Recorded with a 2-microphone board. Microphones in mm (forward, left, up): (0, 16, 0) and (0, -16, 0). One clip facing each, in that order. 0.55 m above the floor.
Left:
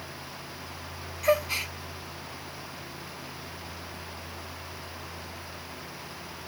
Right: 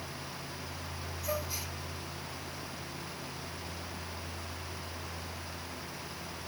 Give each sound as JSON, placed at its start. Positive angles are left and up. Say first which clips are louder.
{"t": 1.2, "sound": "a gasp", "louder": "left 12 dB", "side_deg": 75, "distance_m": 0.5}